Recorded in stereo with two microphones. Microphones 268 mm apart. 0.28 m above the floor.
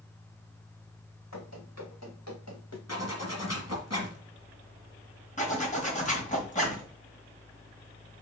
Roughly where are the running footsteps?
Left.